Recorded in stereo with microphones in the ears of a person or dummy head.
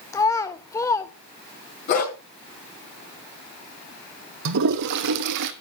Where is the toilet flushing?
60° right (ahead or behind), 1.1 m.